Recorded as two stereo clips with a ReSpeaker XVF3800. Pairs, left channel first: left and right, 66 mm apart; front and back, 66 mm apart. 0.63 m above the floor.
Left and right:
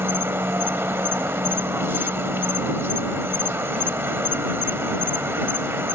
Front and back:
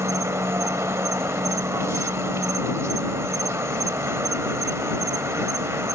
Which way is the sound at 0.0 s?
140° right.